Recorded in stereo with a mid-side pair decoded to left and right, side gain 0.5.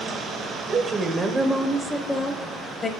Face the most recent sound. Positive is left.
turn(degrees=45)